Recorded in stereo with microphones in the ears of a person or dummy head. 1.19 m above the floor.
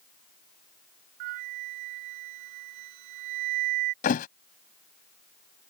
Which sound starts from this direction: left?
A thud, at 4.0 s.